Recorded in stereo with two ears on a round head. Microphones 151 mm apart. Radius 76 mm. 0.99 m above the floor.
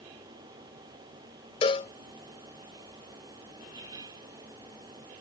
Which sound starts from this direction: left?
A cowbell, at 1.6 s.